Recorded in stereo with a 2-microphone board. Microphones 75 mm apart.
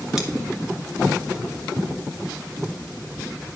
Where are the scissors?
5° right (ahead or behind), 1.7 m.